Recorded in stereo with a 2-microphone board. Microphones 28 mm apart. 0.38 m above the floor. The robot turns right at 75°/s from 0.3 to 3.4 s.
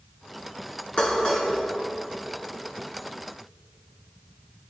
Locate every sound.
1.0 s dishes clattering: 40° left (ahead or behind), 3.5 m; by 1.5 s 5° left (ahead or behind), 3.5 m